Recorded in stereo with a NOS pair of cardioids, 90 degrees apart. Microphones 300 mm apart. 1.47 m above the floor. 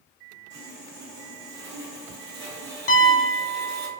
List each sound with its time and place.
0.5 s sawing: 65° right, 1.3 m
2.9 s a piano: 50° left, 1.1 m